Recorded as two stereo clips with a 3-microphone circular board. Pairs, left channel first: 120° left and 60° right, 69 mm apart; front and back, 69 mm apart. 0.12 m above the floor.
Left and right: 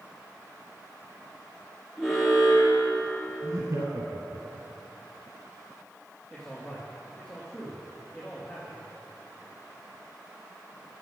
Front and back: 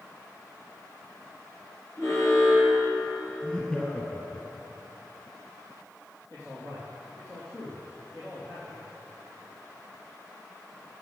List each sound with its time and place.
2.0 s an alarm: 25° left, 3.5 m
3.4 s laughter: 70° right, 2 m
6.3 s a man speaking: 40° left, 4.5 m